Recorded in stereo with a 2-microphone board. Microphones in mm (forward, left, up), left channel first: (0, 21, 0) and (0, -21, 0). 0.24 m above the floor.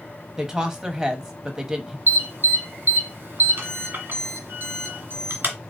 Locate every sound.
0.4 s a woman speaking: 15° right (ahead or behind), 1.0 m
2.1 s an alarm: 55° right (ahead or behind), 1.8 m